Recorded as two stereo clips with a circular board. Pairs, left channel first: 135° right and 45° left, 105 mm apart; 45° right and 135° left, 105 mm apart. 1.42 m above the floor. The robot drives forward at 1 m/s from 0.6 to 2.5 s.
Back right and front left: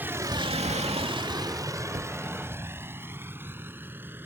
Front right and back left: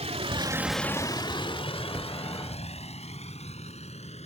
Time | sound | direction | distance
0.0 | a vehicle | 115° left | ?
1.9 | a cupboard door | 40° left | ?